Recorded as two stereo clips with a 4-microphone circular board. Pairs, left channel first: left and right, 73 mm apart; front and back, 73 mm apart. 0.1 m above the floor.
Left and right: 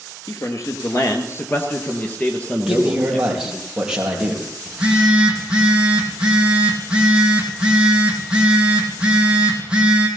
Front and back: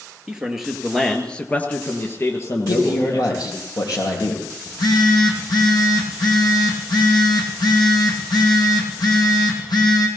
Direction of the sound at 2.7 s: 10° right.